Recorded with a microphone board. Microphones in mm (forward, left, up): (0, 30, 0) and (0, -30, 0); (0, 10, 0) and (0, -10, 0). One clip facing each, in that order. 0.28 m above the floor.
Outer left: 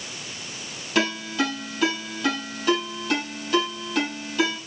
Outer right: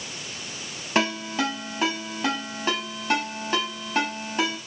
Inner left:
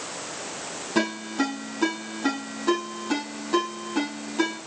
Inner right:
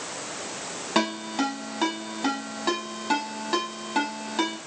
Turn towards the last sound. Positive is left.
turn(degrees=-30)  # may be behind; listen again after turning